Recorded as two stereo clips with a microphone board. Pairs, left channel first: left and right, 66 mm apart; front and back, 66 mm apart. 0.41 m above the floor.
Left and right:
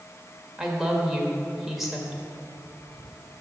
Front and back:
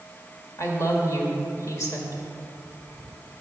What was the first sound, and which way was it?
A woman speaking, 10° right.